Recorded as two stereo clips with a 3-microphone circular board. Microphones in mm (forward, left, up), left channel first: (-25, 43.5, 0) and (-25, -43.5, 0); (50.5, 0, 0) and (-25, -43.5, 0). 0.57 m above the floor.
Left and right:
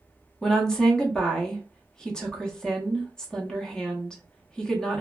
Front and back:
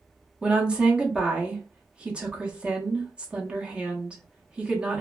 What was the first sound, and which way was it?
A woman speaking, 155° left.